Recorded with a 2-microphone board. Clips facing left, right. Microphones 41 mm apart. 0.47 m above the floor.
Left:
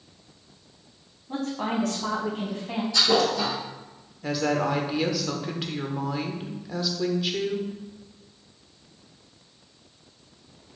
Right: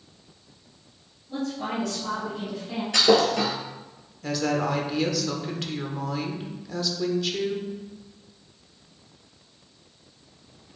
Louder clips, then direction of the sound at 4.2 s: Left 1 dB; 10° left (ahead or behind).